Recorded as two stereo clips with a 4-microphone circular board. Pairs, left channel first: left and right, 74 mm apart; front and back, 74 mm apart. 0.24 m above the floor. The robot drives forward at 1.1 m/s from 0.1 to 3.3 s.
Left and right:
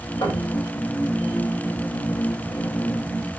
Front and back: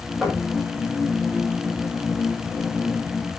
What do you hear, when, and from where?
0.2 s knocking: 90° left, 8.5 m; by 0.5 s 95° left, 8.5 m